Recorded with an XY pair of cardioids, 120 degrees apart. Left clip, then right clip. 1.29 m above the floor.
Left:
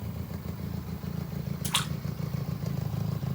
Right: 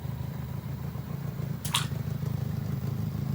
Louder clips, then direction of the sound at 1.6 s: Left 1 dB; straight ahead.